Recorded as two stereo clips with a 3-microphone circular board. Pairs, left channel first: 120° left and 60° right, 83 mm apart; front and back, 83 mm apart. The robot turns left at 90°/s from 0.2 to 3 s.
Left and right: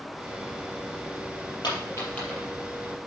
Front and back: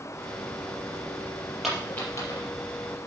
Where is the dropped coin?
95° left, 5 m; by 2.5 s 20° left, 5 m.